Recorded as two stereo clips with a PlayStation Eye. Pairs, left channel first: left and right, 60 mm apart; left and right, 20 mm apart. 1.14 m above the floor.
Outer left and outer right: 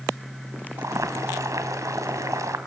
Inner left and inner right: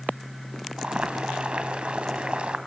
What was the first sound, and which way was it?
Boiling, 60° right (ahead or behind).